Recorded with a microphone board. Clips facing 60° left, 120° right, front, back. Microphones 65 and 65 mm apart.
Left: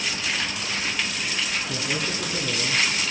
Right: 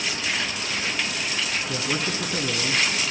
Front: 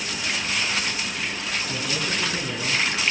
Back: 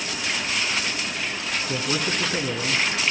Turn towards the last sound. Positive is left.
turn(degrees=-135)